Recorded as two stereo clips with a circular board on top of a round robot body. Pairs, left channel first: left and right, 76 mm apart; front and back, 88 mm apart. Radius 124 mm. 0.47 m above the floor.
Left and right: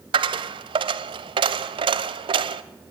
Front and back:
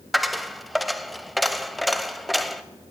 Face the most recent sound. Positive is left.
turn(degrees=-90)